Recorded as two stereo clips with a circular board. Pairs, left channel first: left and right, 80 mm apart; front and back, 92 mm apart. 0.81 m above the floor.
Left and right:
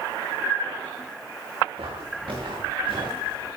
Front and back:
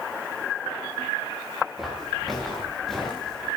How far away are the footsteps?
About 8 m.